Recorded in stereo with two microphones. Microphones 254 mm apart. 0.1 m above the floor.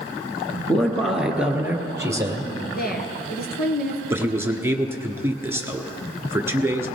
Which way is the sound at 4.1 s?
10° right (ahead or behind).